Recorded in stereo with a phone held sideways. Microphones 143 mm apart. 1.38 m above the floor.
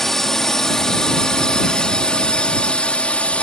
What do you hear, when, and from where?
0.0 s a drone: 5° left (ahead or behind); by 3.4 s 10° left (ahead or behind)